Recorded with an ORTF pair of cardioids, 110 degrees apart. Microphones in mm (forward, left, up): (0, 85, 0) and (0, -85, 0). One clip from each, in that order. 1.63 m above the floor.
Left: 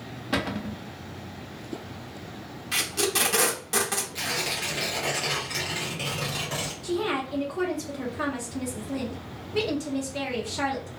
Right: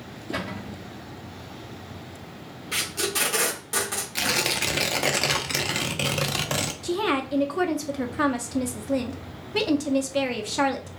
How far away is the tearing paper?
About 0.6 m.